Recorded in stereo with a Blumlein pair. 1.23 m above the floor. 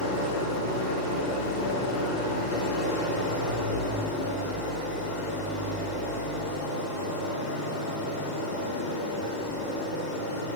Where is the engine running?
65° left, 6.5 m.